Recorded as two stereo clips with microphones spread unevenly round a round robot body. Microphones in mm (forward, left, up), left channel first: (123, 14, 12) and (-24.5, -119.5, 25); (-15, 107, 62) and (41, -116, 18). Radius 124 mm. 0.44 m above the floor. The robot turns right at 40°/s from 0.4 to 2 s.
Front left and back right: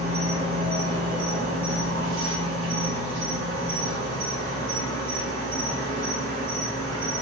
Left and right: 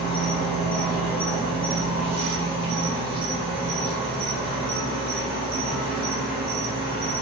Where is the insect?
160° left, 1.6 m; by 7.2 s 135° right, 1.6 m.